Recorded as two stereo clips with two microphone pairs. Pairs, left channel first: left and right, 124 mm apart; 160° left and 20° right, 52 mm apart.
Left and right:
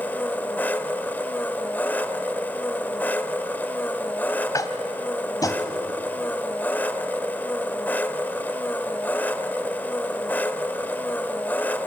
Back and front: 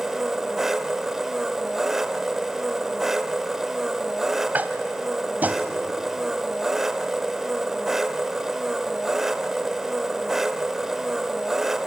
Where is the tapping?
35° left, 1.6 m.